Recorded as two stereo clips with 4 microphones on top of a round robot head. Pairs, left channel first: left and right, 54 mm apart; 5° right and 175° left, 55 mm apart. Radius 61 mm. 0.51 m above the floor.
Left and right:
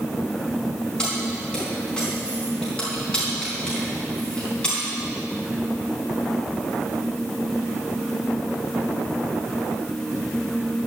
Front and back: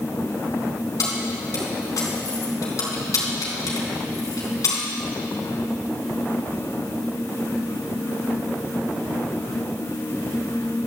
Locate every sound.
1.0 s keys jangling: 10° left, 3.5 m